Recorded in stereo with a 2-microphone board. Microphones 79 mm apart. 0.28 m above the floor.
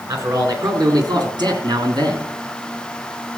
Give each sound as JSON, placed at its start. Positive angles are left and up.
{"t": 0.1, "sound": "a man speaking", "side_deg": -45, "distance_m": 3.5}